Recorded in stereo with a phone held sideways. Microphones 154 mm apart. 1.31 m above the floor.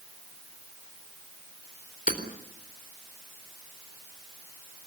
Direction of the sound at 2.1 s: 65° left (ahead or behind).